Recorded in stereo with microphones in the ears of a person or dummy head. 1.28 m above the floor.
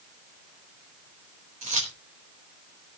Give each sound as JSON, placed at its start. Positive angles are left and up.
{"t": 1.6, "sound": "keys jangling", "side_deg": -40, "distance_m": 4.0}